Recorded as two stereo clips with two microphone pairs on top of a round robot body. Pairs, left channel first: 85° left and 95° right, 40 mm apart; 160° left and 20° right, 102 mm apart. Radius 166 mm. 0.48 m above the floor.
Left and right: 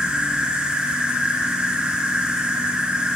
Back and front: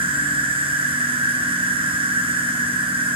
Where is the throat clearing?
No throat clearing in this recording.